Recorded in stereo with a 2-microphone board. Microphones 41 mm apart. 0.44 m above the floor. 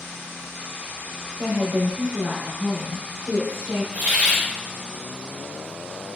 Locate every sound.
1.4 s a woman speaking: 30° right (ahead or behind), 1.2 m; by 3.8 s 5° left (ahead or behind), 1.2 m
3.9 s a hiss: 45° right (ahead or behind), 0.8 m